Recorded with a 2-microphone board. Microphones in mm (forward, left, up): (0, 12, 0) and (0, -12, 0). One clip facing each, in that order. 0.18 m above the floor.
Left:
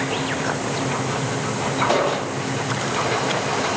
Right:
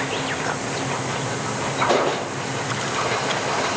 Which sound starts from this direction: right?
An explosion, at 1.9 s.